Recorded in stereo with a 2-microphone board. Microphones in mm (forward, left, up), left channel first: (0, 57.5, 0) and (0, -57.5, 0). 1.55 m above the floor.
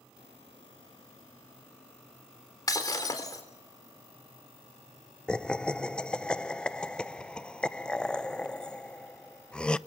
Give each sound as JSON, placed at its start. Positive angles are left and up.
{"t": 2.7, "sound": "breaking glass", "side_deg": 35, "distance_m": 3.5}
{"t": 5.3, "sound": "laughter", "side_deg": 10, "distance_m": 0.6}